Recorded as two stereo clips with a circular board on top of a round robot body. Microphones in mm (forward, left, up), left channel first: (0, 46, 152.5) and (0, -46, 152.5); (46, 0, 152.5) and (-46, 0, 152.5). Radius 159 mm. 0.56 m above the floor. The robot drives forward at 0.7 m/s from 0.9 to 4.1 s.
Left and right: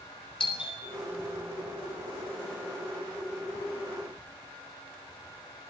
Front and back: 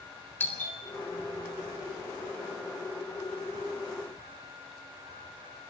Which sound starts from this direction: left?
A doorbell, at 0.4 s.